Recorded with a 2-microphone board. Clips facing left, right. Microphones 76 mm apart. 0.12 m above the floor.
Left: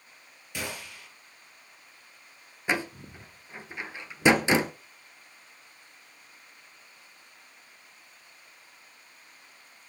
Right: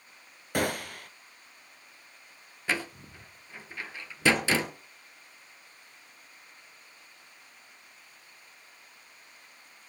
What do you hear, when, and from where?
0.5 s a gunshot: 60° right (ahead or behind), 1.1 m
2.7 s a door slam: 20° left (ahead or behind), 1.3 m